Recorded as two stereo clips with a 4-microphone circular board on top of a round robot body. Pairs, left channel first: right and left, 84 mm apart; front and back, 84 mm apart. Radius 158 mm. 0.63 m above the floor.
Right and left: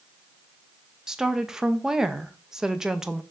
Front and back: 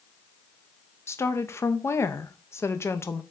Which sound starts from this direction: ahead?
A woman speaking, at 1.1 s.